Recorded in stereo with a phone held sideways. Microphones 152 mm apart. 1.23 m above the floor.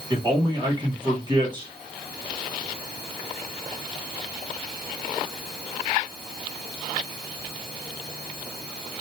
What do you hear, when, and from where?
0.1 s a man speaking: 30° right (ahead or behind), 1.3 m